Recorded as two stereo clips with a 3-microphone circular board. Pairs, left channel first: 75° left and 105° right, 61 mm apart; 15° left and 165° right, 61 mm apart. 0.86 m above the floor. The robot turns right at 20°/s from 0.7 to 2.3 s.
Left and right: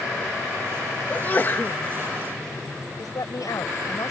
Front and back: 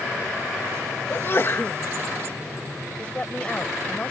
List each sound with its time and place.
1.1 s a sneeze: 30° left; by 1.8 s 45° left
3.0 s a woman speaking: 85° left